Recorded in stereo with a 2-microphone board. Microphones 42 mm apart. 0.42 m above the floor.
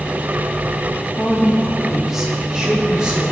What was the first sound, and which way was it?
A woman speaking, 20° left (ahead or behind).